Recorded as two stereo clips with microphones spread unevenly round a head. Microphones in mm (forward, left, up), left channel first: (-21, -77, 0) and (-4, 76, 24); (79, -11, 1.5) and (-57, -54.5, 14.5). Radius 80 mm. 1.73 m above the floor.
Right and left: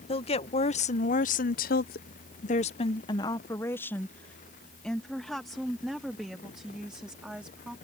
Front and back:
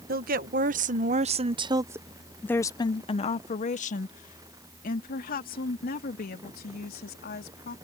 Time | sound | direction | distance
0.1 | a woman speaking | 155° right | ?